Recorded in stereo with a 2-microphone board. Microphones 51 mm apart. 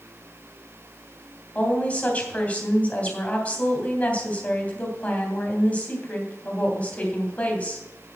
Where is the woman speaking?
25° left (ahead or behind), 3 m.